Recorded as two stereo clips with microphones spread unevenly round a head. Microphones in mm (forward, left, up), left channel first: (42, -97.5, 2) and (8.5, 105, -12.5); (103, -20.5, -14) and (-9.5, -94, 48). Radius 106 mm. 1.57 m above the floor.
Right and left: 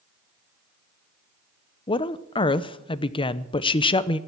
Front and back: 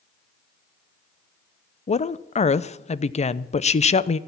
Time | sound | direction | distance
1.9 | a woman speaking | 15° right | 0.8 m